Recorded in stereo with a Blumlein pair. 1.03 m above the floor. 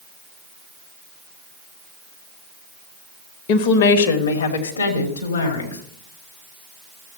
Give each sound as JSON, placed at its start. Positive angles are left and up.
{"t": 3.5, "sound": "a woman speaking", "azimuth_deg": 50, "distance_m": 1.1}